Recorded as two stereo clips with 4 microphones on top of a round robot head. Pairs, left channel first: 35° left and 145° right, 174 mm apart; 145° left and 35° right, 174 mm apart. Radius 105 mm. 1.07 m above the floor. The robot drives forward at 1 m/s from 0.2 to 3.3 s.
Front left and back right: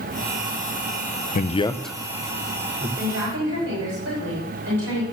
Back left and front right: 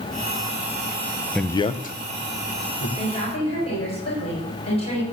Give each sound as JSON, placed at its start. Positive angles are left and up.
{"t": 1.4, "sound": "a man speaking", "azimuth_deg": 55, "distance_m": 0.6}
{"t": 3.0, "sound": "a woman speaking", "azimuth_deg": -155, "distance_m": 5.5}